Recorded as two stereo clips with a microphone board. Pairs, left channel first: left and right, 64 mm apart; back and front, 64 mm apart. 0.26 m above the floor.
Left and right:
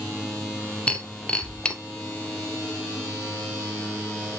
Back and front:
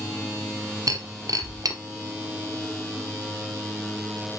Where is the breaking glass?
15° left, 0.7 m.